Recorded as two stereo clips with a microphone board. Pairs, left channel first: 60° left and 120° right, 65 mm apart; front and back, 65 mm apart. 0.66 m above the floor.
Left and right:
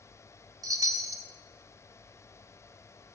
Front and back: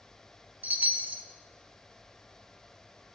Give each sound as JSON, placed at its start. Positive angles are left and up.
{"t": 0.6, "sound": "a chime", "azimuth_deg": -120, "distance_m": 1.4}